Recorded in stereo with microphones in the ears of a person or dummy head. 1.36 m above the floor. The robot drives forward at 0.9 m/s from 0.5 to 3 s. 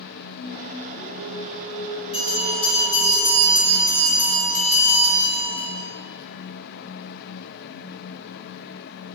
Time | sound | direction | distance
0.4 | singing | 60° left (ahead or behind) | 1.3 m
2.1 | a bell | 30° left (ahead or behind) | 3 m